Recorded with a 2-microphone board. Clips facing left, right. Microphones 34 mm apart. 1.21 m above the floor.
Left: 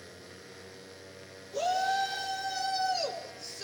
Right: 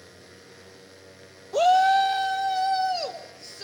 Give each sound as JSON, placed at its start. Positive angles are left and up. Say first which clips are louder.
{"t": 1.5, "sound": "a shout", "louder": "right 10 dB", "side_deg": -65, "distance_m": 1.0}